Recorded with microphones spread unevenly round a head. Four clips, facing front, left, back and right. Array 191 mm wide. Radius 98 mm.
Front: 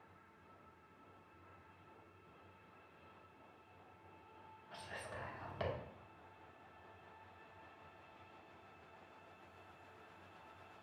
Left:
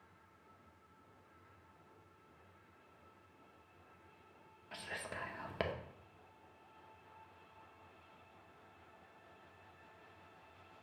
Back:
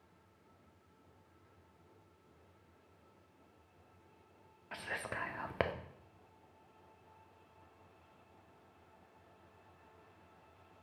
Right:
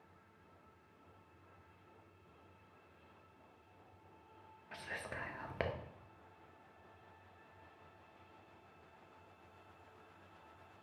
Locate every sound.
4.7 s whispering: straight behind, 0.6 m